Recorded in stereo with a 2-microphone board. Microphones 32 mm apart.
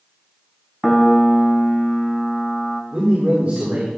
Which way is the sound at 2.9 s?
60° right (ahead or behind).